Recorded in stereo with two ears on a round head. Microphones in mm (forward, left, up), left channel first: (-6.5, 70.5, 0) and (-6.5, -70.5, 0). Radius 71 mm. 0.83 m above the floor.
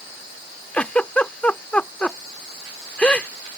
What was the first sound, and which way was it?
A giggle, 10° left (ahead or behind).